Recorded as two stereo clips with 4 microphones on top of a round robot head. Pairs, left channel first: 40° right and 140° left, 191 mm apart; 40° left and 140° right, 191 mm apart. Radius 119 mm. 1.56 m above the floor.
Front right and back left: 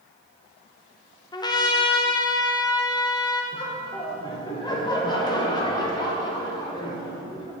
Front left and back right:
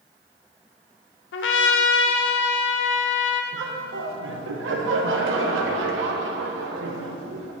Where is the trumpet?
25° left, 0.7 m.